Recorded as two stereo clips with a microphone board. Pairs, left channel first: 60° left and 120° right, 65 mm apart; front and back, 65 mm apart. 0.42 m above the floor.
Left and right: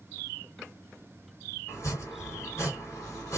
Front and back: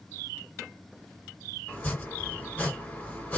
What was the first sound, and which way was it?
Chopping, 55° left.